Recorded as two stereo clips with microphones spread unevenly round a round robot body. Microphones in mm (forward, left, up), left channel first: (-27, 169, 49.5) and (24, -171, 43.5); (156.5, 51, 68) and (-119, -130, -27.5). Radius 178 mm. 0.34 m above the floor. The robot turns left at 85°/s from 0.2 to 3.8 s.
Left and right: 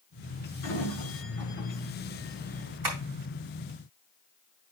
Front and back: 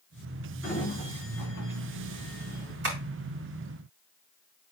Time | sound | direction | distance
0.6 | a sliding door | 120° left | 5.5 m
2.8 | tapping | 95° right | 4 m